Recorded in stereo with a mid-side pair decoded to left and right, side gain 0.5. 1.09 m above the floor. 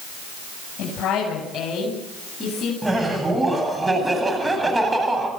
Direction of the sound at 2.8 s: 15° right.